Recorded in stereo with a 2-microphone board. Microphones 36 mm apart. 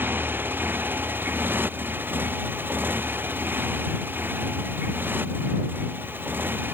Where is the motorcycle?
75° right (ahead or behind).